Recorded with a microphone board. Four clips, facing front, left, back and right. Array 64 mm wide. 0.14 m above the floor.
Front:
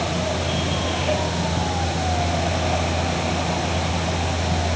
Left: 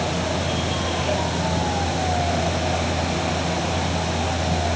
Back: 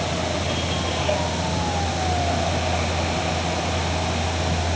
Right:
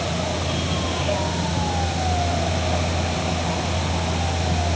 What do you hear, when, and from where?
Only background noise.